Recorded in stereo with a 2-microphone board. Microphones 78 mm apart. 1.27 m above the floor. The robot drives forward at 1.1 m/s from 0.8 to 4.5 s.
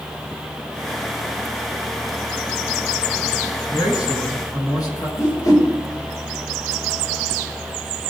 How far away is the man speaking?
About 9 m.